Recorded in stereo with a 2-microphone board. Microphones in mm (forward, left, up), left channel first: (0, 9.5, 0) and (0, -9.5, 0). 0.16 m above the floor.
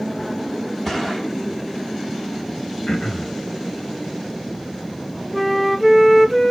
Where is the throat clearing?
45° left (ahead or behind), 1.3 m.